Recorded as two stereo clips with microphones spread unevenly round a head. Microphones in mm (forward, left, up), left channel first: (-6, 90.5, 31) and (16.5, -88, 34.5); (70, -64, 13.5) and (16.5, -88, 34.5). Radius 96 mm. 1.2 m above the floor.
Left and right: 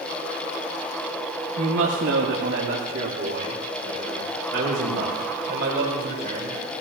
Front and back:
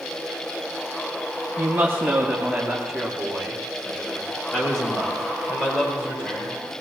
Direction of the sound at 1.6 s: 100° right.